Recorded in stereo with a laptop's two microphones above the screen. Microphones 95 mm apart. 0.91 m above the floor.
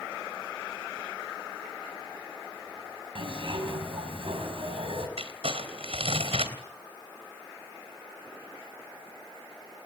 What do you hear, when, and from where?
3.1 s a zipper: 65° right (ahead or behind), 6 m
5.2 s crumpling: 85° right, 3 m